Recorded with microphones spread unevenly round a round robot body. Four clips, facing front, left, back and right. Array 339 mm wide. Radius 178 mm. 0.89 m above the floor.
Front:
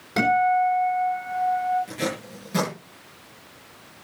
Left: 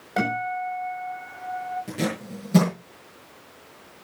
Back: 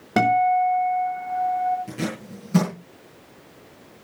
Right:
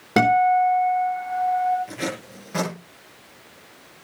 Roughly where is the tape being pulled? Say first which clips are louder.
Left 2 dB, front 1 dB; behind left.